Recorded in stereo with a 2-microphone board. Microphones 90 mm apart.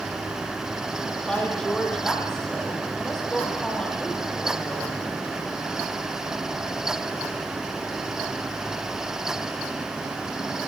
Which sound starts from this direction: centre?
A woman speaking, at 1.3 s.